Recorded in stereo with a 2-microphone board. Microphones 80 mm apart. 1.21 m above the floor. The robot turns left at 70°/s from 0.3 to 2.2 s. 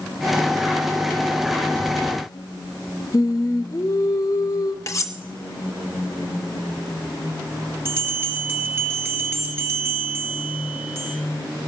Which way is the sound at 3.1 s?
40° left (ahead or behind).